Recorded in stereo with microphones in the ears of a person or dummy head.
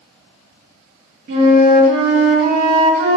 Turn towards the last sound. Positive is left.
turn(degrees=-60)  # may be behind; listen again after turning